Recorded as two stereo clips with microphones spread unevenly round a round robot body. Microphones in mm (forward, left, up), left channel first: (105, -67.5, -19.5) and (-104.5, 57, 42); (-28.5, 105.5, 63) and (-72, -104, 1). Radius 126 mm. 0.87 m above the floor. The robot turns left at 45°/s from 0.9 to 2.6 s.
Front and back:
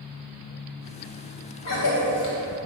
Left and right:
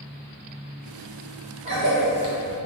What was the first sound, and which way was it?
A cough, 40° right.